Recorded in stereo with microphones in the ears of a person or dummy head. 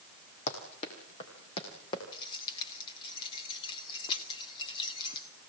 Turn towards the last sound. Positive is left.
turn(degrees=30)  # may be behind; listen again after turning